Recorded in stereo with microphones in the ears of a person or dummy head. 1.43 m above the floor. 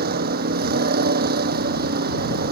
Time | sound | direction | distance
0.0 | a vehicle | 50° right (ahead or behind) | ?